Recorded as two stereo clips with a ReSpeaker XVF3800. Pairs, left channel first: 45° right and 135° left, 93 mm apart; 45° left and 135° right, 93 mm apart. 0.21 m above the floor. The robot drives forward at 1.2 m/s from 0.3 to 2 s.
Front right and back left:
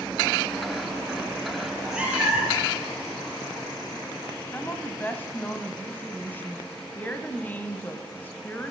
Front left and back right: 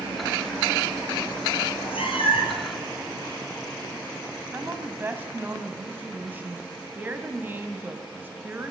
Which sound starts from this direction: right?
A woman speaking, at 4.5 s.